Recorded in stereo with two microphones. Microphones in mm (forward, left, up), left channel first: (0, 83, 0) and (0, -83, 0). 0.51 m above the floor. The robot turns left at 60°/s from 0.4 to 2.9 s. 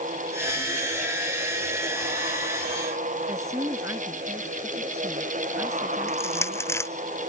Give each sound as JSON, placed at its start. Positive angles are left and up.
{"t": 3.3, "sound": "a woman speaking", "side_deg": -15}
{"t": 6.1, "sound": "crushing", "side_deg": 15}